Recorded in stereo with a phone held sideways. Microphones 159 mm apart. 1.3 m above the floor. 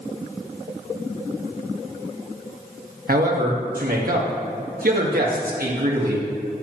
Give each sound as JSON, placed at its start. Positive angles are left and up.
{"t": 3.1, "sound": "a man speaking", "side_deg": -65, "distance_m": 1.7}